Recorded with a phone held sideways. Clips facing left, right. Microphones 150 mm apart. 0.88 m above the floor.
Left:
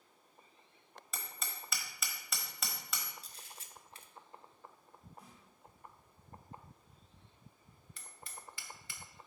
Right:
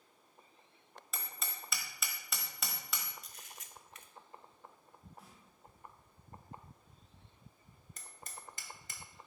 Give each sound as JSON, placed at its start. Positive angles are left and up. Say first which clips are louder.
{"t": 1.1, "sound": "hammering", "louder": "even", "side_deg": 0, "distance_m": 1.4}
{"t": 3.2, "sound": "a camera shutter", "louder": "even", "side_deg": 30, "distance_m": 0.6}
{"t": 5.2, "sound": "a snare drum", "louder": "left 1 dB", "side_deg": -5, "distance_m": 3.0}
{"t": 8.0, "sound": "hammering", "louder": "right 1 dB", "side_deg": -45, "distance_m": 0.9}